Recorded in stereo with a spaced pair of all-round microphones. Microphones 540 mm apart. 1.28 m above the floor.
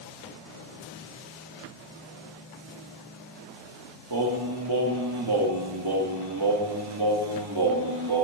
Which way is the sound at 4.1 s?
45° right (ahead or behind).